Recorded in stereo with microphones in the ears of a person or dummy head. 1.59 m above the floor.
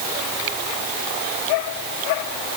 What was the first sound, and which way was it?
Only background noise.